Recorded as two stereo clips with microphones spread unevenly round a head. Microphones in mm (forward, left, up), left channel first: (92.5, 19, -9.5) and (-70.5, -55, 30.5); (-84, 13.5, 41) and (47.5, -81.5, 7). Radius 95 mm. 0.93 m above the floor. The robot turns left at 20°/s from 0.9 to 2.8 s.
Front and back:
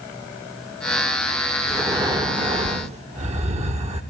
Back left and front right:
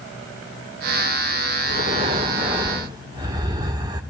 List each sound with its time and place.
1.7 s breathing: 75° right, 3 m; by 4.0 s 100° right, 3 m